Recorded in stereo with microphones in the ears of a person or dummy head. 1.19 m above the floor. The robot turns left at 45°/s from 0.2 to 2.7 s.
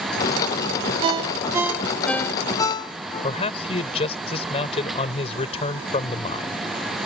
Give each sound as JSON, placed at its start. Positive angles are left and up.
{"t": 1.0, "sound": "a ringtone", "side_deg": -30}
{"t": 3.2, "sound": "a man speaking", "side_deg": 35}